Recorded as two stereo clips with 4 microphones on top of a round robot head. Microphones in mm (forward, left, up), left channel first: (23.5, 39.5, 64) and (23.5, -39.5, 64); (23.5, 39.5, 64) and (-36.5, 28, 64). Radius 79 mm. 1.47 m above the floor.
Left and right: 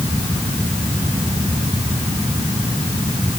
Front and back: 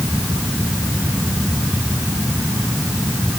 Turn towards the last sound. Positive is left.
No sound to turn to.